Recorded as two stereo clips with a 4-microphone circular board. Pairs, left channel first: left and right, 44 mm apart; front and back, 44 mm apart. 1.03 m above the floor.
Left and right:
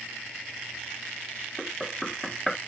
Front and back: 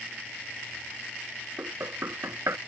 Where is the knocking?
165° left.